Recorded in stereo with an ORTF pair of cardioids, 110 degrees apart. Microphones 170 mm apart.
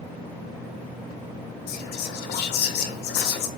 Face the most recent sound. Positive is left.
turn(degrees=70)